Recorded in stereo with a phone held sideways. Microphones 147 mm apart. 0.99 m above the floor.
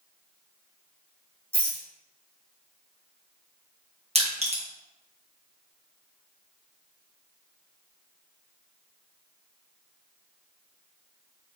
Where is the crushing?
45° right (ahead or behind), 1.2 m.